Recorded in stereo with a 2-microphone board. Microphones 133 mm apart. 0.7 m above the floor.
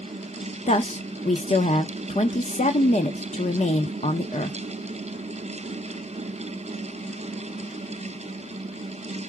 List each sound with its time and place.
0.7 s a woman speaking: 55° left (ahead or behind), 0.8 m